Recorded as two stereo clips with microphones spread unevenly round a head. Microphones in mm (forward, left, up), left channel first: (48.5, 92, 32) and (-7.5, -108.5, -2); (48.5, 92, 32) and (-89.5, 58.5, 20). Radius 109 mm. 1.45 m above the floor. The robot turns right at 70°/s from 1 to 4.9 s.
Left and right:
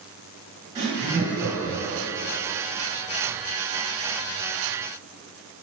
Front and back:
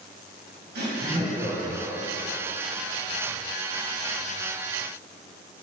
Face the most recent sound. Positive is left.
turn(degrees=105)